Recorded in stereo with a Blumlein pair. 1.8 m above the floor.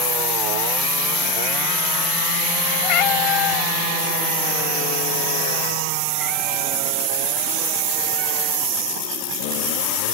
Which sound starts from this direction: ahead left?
A cat meowing, at 2.8 s.